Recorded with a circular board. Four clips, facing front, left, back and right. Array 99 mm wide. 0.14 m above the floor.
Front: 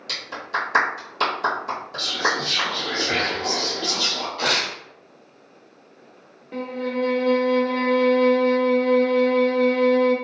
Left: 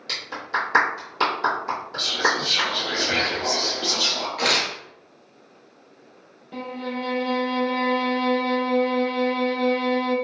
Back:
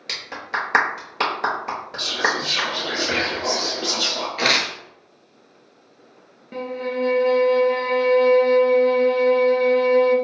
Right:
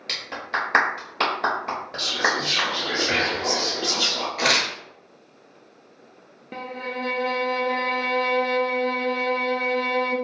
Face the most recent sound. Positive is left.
turn(degrees=-100)